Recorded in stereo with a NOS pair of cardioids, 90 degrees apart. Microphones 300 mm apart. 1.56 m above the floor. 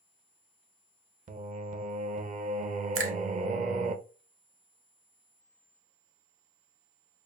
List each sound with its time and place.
1.3 s singing: 25° right, 0.7 m
3.0 s a finger snap: 45° right, 1.3 m